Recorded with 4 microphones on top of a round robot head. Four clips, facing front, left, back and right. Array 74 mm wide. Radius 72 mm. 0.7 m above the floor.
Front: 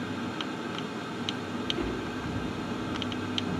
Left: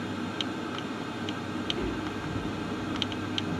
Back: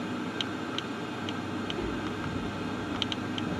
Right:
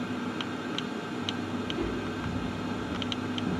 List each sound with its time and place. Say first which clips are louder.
1.6 s footsteps: even, front 1 dB; 40° left, 0.7 m; by 3.6 s 105° right, 1.3 m